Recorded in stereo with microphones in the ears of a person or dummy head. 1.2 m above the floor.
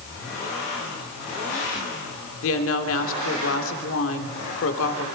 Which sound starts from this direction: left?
A woman speaking, at 2.4 s.